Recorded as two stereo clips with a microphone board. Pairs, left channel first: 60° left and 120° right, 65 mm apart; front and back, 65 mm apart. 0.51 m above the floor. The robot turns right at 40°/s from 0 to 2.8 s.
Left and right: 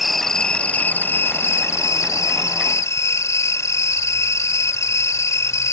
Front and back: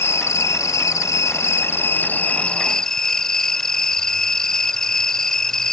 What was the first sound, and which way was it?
An insect, 30° right.